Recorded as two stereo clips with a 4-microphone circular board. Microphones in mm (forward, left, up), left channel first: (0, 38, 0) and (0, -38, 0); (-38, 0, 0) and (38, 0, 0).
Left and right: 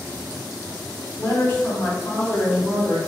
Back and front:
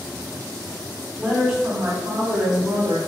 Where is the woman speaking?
100° left, 0.6 m; by 3.0 s 5° right, 1.0 m.